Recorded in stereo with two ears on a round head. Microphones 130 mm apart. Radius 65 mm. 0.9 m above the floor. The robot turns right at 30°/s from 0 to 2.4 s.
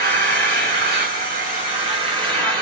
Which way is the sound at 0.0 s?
100° right.